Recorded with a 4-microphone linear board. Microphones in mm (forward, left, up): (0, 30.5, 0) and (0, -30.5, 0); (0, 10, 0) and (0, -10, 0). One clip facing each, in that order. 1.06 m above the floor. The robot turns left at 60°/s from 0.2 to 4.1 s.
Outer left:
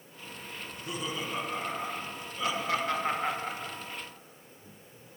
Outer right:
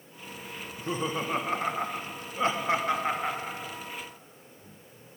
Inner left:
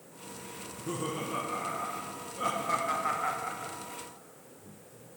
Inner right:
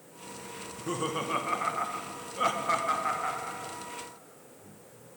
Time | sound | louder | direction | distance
0.6 | laughter | outer right 6 dB, inner right 3 dB | 20° right (ahead or behind) | 0.9 m